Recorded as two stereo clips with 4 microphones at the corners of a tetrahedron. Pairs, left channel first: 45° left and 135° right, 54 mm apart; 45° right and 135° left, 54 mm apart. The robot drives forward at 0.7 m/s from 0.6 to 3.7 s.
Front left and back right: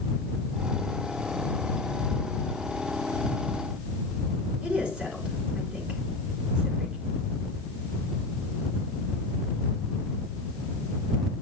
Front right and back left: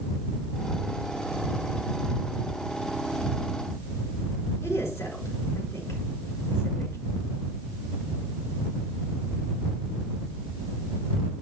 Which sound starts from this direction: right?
A woman speaking, at 4.6 s.